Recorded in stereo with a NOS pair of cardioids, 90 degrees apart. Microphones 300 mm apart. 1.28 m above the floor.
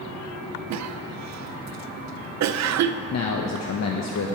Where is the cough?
60° right, 0.6 m.